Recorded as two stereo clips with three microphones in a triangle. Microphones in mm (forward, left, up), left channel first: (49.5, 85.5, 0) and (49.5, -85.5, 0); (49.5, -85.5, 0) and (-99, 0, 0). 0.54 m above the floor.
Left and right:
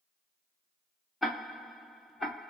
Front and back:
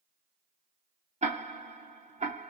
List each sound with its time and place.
1.2 s ticking: straight behind, 0.7 m